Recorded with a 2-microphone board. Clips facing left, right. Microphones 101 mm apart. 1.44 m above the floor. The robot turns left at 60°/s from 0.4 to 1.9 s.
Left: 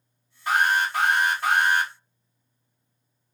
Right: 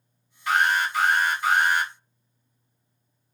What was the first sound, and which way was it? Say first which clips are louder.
An alarm: even; 145° left.